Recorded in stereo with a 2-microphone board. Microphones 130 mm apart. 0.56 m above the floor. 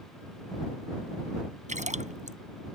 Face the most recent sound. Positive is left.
turn(degrees=-70)  # may be behind; listen again after turning